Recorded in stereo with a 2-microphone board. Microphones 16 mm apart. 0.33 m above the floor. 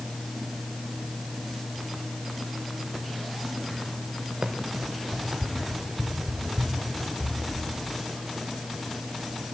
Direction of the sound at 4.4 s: 75° right (ahead or behind).